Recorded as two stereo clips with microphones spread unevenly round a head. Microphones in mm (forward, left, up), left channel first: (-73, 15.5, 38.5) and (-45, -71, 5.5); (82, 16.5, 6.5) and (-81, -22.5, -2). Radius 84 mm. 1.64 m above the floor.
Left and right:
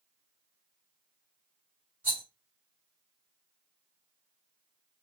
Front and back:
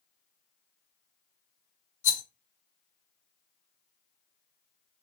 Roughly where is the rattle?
Ahead left.